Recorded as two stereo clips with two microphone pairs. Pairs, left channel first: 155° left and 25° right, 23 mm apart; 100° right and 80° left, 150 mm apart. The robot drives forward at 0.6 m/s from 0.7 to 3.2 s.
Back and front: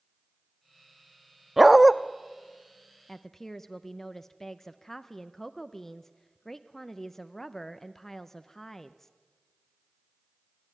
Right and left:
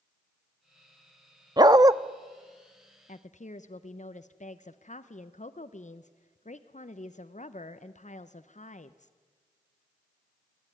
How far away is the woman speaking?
About 0.6 m.